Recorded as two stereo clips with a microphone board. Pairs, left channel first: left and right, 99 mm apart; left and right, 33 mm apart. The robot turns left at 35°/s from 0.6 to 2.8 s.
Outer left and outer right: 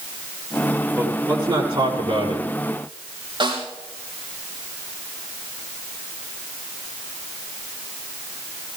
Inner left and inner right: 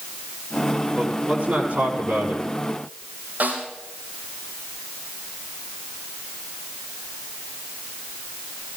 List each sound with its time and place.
1.0 s a man speaking: 35° right, 5.5 m; by 2.5 s 90° right, 5.5 m
3.4 s a snare drum: 55° right (ahead or behind), 6 m